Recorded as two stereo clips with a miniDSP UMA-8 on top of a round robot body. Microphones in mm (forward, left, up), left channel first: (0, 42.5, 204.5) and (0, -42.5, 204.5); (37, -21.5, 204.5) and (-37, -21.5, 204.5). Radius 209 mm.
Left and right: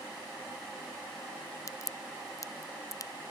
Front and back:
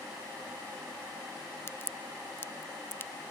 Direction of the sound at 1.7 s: 50° left.